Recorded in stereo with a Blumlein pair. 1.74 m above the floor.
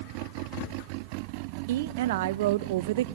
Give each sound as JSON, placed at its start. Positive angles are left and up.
{"t": 1.7, "sound": "a woman speaking", "azimuth_deg": -55, "distance_m": 0.5}